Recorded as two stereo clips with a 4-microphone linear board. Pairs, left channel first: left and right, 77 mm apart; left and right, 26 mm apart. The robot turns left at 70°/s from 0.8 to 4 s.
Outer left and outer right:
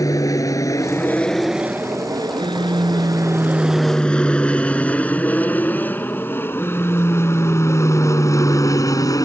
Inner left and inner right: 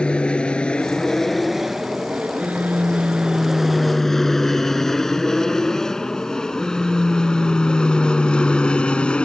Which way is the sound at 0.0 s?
45° left (ahead or behind).